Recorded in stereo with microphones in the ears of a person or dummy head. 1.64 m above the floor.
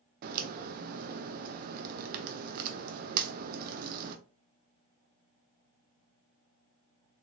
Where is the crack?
50° right (ahead or behind), 0.5 m.